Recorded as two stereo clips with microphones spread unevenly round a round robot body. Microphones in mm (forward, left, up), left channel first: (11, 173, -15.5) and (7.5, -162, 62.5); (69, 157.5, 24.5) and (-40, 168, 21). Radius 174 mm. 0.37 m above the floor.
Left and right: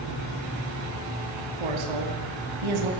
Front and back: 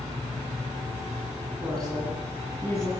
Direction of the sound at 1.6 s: 95° right.